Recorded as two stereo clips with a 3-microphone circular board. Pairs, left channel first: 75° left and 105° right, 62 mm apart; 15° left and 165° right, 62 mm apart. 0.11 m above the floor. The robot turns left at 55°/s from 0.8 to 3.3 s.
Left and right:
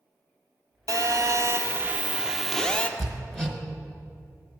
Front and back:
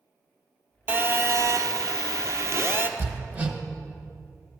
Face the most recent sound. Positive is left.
turn(degrees=150)